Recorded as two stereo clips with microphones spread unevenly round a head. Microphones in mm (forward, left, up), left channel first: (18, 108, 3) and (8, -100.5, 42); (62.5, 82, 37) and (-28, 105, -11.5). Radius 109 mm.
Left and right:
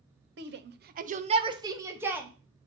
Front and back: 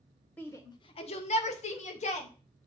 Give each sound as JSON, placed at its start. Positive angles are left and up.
{"t": 0.4, "sound": "a shout", "azimuth_deg": -120, "distance_m": 0.7}